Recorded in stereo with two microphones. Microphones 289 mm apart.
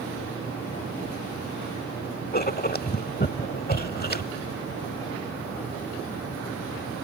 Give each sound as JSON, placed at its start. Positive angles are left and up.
{"t": 2.3, "sound": "writing", "side_deg": 30}